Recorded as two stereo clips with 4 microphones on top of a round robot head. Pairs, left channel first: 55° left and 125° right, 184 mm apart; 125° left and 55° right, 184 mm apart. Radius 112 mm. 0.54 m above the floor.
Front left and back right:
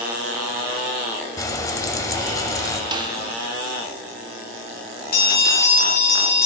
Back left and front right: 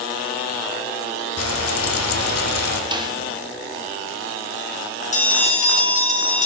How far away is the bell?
About 2.0 m.